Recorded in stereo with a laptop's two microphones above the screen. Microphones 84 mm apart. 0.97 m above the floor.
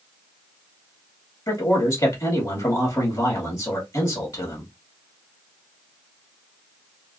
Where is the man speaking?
50° left (ahead or behind), 2 m.